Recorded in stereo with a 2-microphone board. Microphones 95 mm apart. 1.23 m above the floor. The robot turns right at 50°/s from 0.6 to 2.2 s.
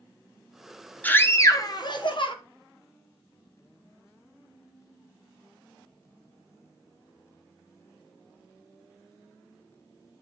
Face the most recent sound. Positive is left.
turn(degrees=80)